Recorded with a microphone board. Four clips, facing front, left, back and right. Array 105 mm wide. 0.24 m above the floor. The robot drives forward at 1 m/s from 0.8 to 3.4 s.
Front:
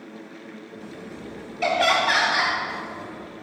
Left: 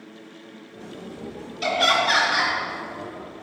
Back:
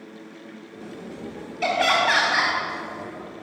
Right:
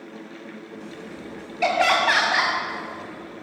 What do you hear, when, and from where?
1.6 s laughter: 80° right, 1.8 m; by 2.5 s 125° right, 2.0 m